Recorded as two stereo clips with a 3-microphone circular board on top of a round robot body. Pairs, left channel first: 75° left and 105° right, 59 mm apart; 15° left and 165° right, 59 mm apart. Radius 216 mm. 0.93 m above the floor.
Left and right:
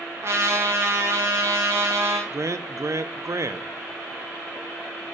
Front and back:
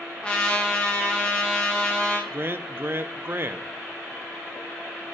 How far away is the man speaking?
About 0.8 m.